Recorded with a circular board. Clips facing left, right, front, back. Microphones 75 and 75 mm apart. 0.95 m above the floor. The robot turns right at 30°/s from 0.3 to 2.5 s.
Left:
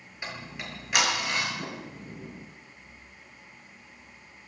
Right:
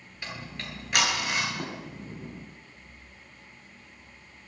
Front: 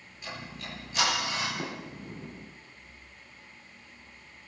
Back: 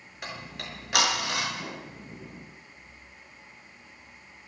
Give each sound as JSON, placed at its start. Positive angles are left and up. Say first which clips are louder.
{"t": 0.2, "sound": "ticking", "louder": "left 1 dB, back 2 dB", "azimuth_deg": 160, "distance_m": 7.0}
{"t": 1.6, "sound": "a sliding door", "louder": "right 1 dB, front 2 dB", "azimuth_deg": -50, "distance_m": 9.0}